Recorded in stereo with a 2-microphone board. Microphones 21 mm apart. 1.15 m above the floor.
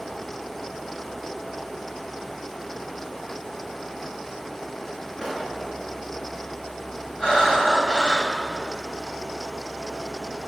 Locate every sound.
5.2 s a pop: 25° left (ahead or behind), 7 m
7.2 s breathing: 40° left (ahead or behind), 6 m